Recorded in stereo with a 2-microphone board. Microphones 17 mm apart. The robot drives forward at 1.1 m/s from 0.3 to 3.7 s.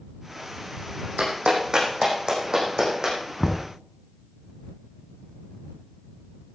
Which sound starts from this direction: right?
A clap, at 1.2 s.